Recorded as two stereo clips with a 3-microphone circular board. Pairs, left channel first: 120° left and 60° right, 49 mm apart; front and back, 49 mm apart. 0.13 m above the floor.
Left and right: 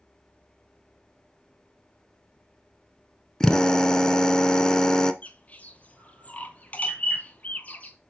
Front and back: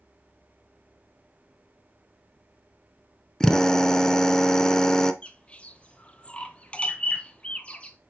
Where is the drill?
60° left, 0.5 m.